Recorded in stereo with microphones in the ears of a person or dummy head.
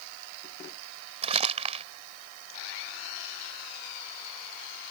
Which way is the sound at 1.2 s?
35° right (ahead or behind).